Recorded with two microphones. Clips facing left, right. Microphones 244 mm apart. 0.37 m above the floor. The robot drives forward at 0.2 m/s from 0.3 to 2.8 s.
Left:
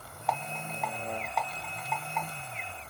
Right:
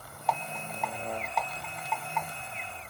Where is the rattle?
Centre (ahead or behind), 1.1 m.